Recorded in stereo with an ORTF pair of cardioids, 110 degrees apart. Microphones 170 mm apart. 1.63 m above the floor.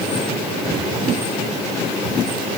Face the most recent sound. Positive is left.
No sound to turn to.